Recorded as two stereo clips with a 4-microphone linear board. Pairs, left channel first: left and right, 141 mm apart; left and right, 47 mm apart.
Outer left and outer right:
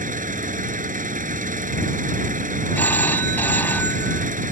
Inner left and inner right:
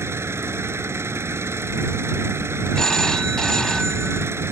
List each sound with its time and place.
0.0 s an engine running: 70° right (ahead or behind)
2.8 s a phone ringing: 15° left (ahead or behind)